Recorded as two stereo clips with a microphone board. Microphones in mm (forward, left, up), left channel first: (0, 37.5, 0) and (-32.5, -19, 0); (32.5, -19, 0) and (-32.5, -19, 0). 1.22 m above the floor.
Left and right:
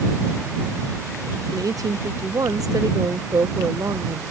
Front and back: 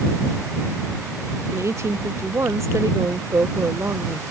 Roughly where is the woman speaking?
Behind right.